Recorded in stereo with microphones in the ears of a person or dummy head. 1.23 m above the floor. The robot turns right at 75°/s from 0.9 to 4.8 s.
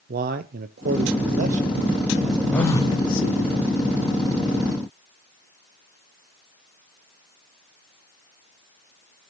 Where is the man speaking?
105° right, 0.6 m; by 3.5 s 90° left, 0.6 m.